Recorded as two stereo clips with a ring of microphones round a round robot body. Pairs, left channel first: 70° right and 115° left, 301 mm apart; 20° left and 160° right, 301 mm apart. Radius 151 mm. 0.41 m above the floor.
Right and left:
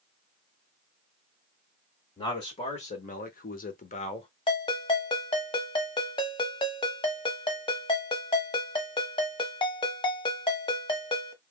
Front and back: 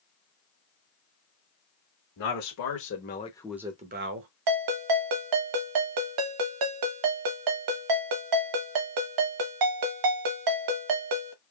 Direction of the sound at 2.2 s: 5° left.